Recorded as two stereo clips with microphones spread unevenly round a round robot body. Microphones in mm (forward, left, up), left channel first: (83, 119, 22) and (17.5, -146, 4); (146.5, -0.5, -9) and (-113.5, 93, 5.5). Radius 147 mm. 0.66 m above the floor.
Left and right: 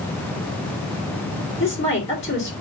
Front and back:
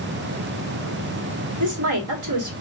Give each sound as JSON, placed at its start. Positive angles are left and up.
{"t": 1.6, "sound": "a woman speaking", "azimuth_deg": 145, "distance_m": 2.5}